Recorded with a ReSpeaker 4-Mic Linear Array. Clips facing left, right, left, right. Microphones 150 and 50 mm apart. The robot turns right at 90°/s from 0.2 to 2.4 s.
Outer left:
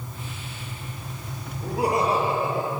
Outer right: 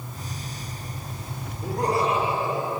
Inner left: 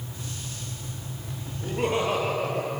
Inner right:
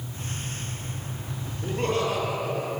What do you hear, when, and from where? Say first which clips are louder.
1.6 s laughter: outer left 1 dB, even; 10° right, 7 m; by 2.7 s 60° left, 7 m